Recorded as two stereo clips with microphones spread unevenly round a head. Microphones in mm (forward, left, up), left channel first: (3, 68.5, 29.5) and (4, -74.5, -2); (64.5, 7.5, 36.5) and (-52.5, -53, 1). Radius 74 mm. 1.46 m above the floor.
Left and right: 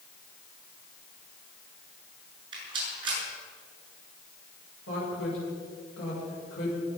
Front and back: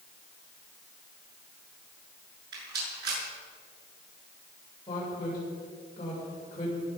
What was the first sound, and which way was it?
A rattle, 150° right.